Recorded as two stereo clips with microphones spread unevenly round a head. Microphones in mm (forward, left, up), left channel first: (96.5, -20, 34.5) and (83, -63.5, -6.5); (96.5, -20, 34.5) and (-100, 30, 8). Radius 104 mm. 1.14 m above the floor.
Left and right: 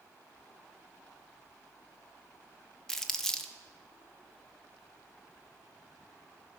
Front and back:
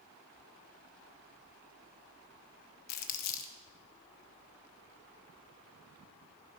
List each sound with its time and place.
2.9 s crumpling: 10° right, 0.9 m